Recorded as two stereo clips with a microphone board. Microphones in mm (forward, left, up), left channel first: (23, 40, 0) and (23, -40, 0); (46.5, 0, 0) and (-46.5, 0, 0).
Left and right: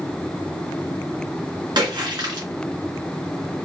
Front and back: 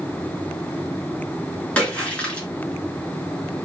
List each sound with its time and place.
1.8 s a splash: 75° right, 1.8 m